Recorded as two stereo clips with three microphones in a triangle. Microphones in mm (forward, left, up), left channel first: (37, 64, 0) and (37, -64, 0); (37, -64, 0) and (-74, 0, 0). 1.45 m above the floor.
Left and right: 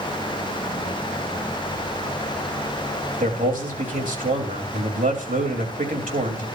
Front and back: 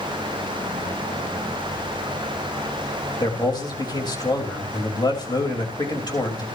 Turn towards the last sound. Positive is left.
turn(degrees=-90)